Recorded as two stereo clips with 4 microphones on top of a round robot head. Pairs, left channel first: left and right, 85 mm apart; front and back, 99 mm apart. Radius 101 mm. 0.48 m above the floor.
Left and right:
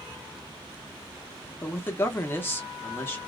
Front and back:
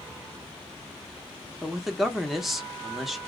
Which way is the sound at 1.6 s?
95° left.